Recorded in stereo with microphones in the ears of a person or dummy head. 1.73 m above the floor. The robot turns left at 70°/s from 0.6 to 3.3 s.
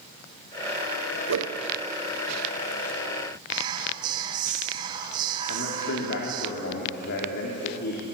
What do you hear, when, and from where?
1.3 s a whoosh: 85° right, 1.3 m; by 1.6 s 65° right (ahead or behind), 1.3 m
3.5 s whispering: 30° right (ahead or behind), 1.8 m
5.5 s a man speaking: 65° left (ahead or behind), 4 m